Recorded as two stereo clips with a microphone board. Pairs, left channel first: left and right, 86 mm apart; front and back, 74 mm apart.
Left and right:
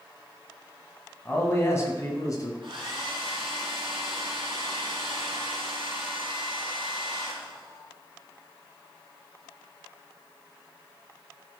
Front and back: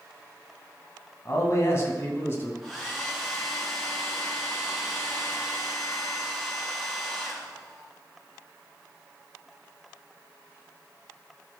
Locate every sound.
1.2 s a man speaking: 30° left, 2 m; by 2.5 s 50° left, 2.5 m
2.6 s a hair dryer: 90° right, 3.5 m